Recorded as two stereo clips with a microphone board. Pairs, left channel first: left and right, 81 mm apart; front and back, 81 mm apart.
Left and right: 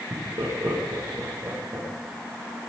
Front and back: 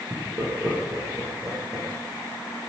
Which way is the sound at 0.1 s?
125° right.